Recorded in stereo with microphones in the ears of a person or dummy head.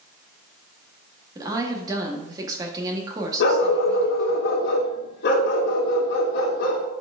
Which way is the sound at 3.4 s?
50° left (ahead or behind).